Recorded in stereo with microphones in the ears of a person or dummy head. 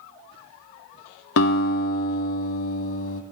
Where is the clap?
No clap in this recording.